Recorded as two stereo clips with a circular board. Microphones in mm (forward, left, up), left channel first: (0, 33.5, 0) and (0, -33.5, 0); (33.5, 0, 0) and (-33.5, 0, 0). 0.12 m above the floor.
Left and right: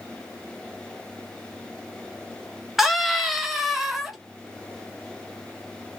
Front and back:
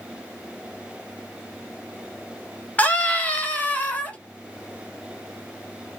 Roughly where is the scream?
Ahead.